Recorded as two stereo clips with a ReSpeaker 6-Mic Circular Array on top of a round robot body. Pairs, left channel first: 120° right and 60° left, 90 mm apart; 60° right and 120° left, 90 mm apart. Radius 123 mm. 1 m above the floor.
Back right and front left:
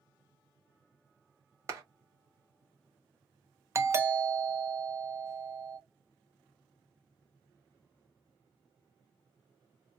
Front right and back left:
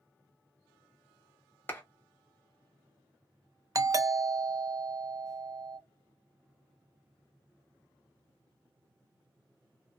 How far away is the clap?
About 1.2 m.